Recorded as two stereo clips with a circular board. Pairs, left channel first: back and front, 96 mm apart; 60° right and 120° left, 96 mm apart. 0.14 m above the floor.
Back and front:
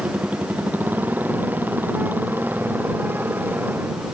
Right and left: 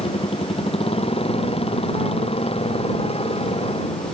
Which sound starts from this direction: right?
A motorcycle, at 0.0 s.